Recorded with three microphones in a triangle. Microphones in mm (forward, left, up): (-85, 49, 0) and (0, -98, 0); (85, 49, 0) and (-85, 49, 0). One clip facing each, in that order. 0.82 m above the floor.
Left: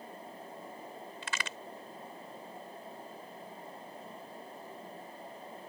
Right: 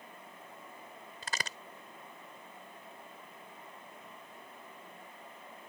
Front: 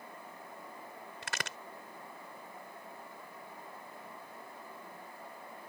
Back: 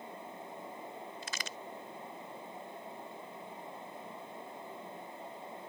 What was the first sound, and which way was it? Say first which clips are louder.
A crack: right 2 dB, front 2 dB; 10° right.